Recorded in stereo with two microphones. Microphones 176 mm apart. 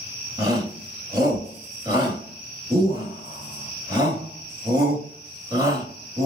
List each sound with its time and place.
0.4 s a shout: 25° right (ahead or behind), 1.9 m